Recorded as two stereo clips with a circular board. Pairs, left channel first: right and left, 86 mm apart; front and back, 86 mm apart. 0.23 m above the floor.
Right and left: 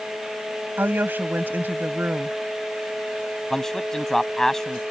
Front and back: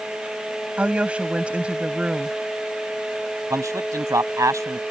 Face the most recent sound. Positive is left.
turn(degrees=-175)